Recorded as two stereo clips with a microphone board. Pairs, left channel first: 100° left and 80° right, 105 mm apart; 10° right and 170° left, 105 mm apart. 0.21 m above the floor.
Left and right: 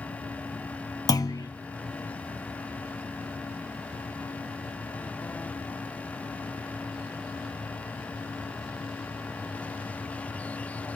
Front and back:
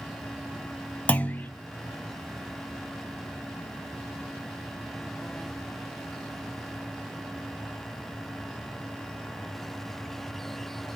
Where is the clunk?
60° left, 0.5 m.